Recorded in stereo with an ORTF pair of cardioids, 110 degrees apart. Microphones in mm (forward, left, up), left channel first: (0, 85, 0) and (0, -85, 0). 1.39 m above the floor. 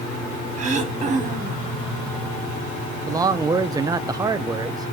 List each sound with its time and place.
0.6 s throat clearing: 45° right, 1.5 m
3.1 s a man speaking: 20° right, 0.5 m